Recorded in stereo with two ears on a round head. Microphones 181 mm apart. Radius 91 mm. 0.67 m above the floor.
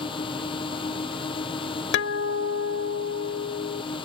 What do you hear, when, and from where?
0.0 s a drone: 25° left (ahead or behind)
1.9 s a guitar: 60° left (ahead or behind)